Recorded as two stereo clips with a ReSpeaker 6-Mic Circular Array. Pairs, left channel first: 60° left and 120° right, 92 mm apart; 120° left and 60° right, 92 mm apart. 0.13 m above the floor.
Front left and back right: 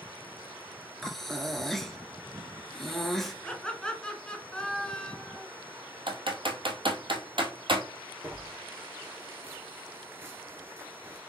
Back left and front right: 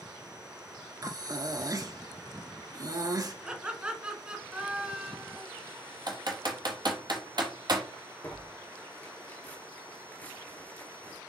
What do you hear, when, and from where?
1.0 s breathing: 25° right, 0.6 m
3.5 s laughter: 5° right, 1.1 m
6.1 s typing on a keyboard: 95° right, 0.9 m
8.2 s tearing paper: 175° right, 1.1 m